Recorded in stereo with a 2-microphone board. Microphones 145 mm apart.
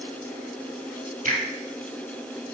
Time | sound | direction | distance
1.2 | a finger snap | 60° right (ahead or behind) | 3.5 m